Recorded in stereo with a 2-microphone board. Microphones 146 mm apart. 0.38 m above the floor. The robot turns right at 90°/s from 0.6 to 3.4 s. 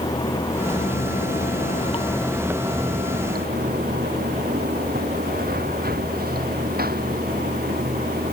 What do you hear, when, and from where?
0.0 s running water: 25° left; by 8.3 s 85° right